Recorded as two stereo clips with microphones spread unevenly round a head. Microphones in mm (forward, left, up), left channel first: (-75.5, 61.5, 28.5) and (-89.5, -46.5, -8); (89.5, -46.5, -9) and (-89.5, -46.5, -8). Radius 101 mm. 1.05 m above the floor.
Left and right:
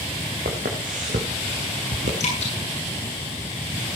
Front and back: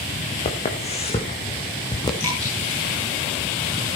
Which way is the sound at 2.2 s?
80° left.